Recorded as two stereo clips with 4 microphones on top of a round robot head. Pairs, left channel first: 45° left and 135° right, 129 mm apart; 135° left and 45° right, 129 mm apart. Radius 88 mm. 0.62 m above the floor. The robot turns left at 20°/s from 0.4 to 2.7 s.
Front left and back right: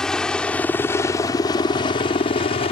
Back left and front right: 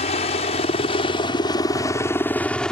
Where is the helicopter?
125° left; by 2.7 s 55° left.